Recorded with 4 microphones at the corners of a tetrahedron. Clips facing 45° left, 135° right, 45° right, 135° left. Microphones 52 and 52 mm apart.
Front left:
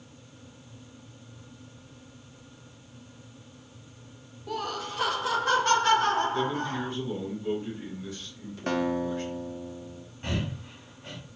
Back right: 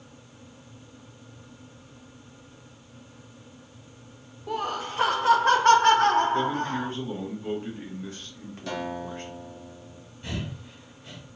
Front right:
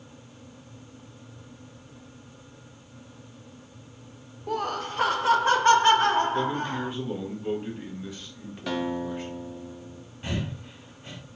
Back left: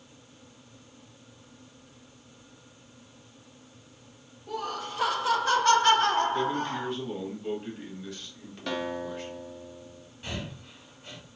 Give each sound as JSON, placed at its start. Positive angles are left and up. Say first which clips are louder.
{"t": 4.5, "sound": "laughter", "louder": "back right 3 dB, front right 5 dB", "azimuth_deg": -60, "distance_m": 0.7}
{"t": 6.3, "sound": "a man speaking", "louder": "back right 3 dB, front right 1 dB", "azimuth_deg": -120, "distance_m": 1.3}
{"t": 8.7, "sound": "a guitar", "louder": "front left 5 dB, front right 3 dB", "azimuth_deg": 40, "distance_m": 0.7}
{"t": 10.2, "sound": "breathing", "louder": "front left 3 dB, front right 5 dB", "azimuth_deg": 15, "distance_m": 1.2}